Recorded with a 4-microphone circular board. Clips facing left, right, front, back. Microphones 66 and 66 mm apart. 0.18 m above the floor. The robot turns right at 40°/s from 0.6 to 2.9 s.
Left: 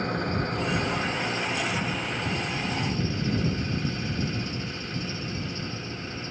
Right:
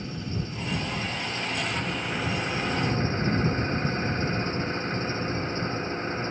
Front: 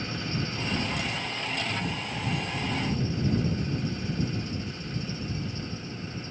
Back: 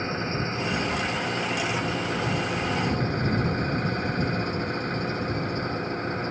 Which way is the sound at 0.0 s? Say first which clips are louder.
Left 6 dB, back 5 dB; 125° left.